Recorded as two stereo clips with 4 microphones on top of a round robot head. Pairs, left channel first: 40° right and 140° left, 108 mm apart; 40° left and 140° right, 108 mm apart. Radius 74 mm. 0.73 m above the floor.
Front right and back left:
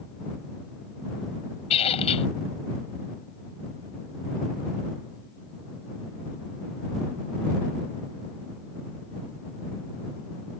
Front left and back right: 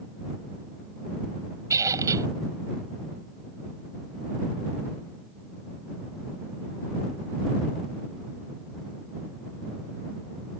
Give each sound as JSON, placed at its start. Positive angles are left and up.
{"t": 1.7, "sound": "a squeak", "azimuth_deg": -75}